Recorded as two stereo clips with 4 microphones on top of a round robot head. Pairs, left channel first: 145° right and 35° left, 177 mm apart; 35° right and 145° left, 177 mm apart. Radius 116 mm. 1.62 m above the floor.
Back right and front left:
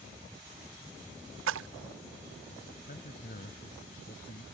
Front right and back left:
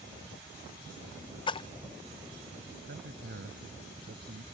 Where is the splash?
25° left.